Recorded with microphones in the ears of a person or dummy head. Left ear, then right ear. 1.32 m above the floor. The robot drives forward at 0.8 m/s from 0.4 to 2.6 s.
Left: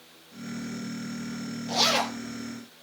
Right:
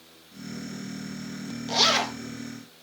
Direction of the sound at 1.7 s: 10° right (ahead or behind).